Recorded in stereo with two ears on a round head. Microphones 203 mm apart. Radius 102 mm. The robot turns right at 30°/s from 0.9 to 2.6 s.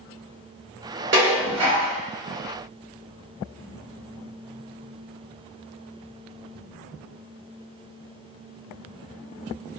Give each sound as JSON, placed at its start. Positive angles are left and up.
{"t": 1.1, "sound": "dishes clattering", "side_deg": -60, "distance_m": 1.6}